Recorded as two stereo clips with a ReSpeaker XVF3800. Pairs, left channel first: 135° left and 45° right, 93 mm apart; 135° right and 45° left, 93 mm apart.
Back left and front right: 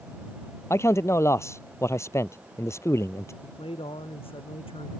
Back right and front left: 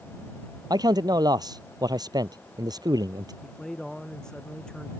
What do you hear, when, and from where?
0.7 s a man speaking: 80° left
3.4 s a man speaking: 140° left